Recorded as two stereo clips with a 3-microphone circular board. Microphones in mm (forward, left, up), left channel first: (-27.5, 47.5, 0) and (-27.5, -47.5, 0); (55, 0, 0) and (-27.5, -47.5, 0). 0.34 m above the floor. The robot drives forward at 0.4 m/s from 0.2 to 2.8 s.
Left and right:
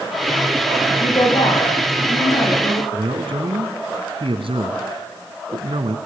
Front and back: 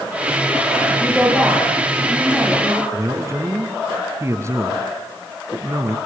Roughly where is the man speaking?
Right.